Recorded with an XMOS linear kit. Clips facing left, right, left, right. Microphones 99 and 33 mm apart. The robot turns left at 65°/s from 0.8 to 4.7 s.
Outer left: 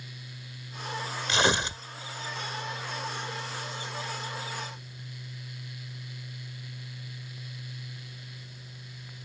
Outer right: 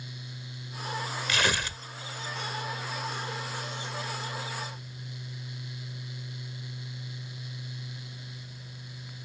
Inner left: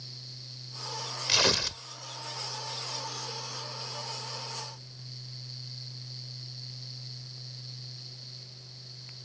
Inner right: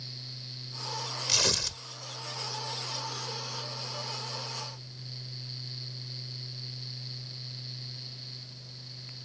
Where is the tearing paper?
25° left (ahead or behind); by 1.8 s 20° left (ahead or behind).